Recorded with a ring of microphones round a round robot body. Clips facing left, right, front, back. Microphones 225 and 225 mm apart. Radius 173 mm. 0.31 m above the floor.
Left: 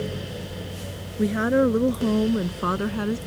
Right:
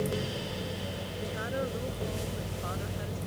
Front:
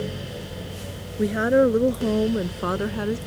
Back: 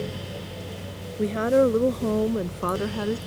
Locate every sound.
1.2 s a woman speaking: 80° left; by 3.2 s 85° left